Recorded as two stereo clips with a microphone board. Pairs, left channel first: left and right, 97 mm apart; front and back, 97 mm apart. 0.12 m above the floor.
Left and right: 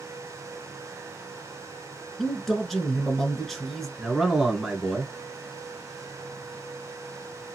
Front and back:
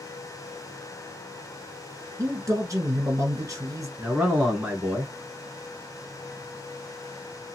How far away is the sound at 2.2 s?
About 1.2 m.